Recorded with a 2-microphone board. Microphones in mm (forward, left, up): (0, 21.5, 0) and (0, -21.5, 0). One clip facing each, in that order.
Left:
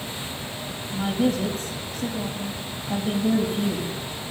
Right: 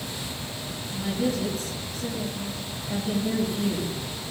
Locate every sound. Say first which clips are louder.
0.9 s a woman speaking: left 4 dB; 50° left (ahead or behind), 4.5 m